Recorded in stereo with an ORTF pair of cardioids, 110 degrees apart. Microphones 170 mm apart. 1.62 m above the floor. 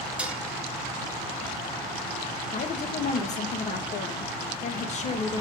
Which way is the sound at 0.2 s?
5° right.